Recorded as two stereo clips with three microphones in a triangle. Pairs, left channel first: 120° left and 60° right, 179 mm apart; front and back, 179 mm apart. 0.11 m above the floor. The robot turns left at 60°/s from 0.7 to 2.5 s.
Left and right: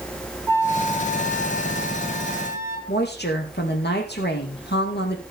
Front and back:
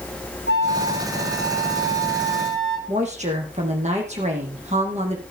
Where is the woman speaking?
130° left, 4.5 m.